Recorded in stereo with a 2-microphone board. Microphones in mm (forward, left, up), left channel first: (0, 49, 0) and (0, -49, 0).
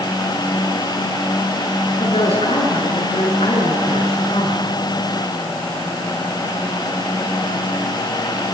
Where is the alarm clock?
I don't hear an alarm clock.